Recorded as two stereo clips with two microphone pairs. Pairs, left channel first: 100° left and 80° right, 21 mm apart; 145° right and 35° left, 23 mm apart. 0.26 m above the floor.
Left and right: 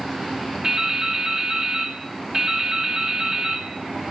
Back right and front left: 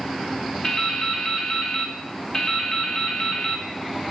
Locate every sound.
0.6 s dripping: 70° right, 1.5 m